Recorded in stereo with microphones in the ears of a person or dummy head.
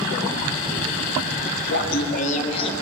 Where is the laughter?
65° left (ahead or behind), 1.1 m; by 2.7 s 30° left (ahead or behind), 1.4 m.